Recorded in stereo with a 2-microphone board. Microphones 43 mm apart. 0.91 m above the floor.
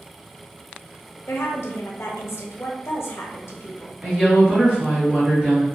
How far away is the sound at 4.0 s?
About 1.4 m.